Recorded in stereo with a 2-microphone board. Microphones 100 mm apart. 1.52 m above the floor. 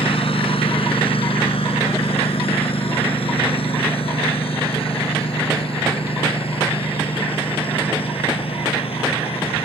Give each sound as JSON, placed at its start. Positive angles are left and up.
{"t": 0.0, "sound": "a lawn mower", "side_deg": 80}